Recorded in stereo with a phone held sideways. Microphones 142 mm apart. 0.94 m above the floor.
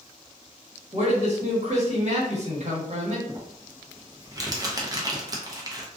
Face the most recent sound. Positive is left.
turn(degrees=-25)  # may be behind; listen again after turning